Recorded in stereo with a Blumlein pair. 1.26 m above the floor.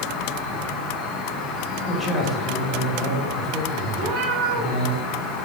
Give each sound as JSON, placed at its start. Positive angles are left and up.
{"t": 0.0, "sound": "an insect", "azimuth_deg": 30, "distance_m": 0.8}
{"t": 1.9, "sound": "a man speaking", "azimuth_deg": 10, "distance_m": 1.5}
{"t": 3.9, "sound": "a cat meowing", "azimuth_deg": -20, "distance_m": 2.0}